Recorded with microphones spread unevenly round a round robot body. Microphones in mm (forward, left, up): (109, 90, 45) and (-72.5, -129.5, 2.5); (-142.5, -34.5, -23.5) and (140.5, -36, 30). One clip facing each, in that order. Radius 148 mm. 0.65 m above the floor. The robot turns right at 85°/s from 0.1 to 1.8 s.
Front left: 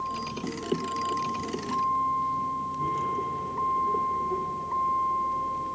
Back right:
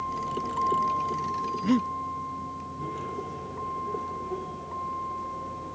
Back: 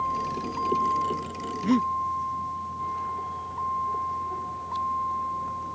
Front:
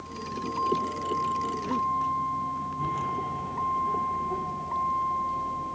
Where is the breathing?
150° right; by 1.9 s 135° right.